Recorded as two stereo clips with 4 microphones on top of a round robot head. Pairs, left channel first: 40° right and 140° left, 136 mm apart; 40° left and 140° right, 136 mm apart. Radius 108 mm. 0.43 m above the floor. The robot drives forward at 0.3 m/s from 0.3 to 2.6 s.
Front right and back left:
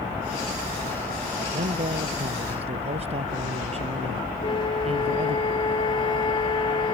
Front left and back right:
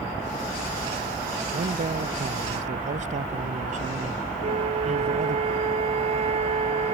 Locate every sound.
1.5 s a man speaking: 175° right
4.4 s a flute: 95° right